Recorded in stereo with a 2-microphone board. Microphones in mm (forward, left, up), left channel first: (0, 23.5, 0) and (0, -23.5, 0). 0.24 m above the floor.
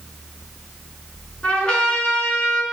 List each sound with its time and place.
1.4 s a trumpet: 25° left (ahead or behind), 2.5 m